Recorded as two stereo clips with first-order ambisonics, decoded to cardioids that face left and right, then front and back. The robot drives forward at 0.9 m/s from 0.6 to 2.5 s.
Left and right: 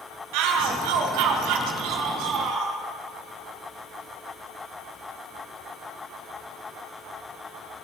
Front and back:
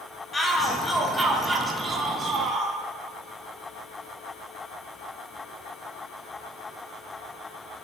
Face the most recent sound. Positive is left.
turn(degrees=-120)